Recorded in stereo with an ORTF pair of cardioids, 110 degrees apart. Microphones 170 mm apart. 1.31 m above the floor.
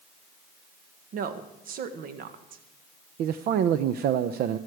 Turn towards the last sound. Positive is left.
turn(degrees=-65)